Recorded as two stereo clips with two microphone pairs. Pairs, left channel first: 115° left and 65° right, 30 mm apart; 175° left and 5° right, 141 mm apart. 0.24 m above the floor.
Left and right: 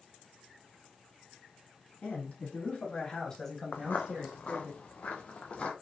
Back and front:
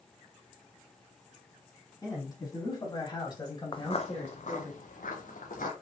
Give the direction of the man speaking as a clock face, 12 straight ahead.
8 o'clock.